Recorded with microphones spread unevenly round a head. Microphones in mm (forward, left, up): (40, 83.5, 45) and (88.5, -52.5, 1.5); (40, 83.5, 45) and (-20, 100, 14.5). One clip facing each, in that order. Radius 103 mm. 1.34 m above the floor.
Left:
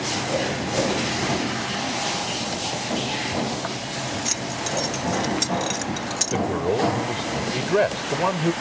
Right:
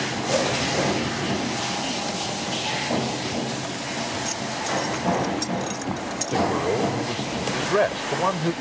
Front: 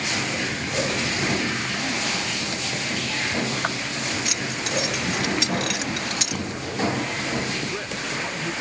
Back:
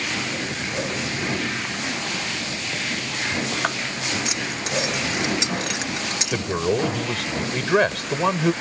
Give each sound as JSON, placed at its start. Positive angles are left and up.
{"t": 4.2, "sound": "keys jangling", "azimuth_deg": 100}
{"t": 6.3, "sound": "a man speaking", "azimuth_deg": -170}